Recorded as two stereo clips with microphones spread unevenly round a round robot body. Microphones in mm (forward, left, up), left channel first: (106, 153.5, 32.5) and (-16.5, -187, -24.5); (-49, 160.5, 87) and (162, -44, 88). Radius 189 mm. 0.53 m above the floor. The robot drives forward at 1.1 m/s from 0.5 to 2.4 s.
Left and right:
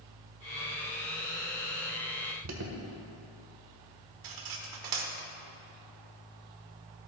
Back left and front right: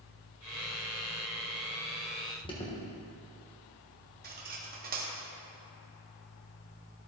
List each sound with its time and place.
2.4 s an alarm: 150° right, 1.2 m
4.2 s cutlery clinking: 105° right, 1.0 m